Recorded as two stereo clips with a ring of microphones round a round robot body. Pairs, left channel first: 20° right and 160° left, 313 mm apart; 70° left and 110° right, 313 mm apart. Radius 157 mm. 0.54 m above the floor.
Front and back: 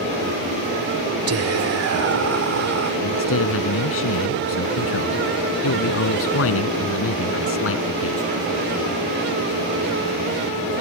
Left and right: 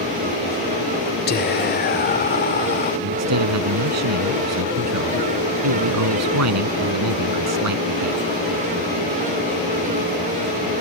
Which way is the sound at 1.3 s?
125° left.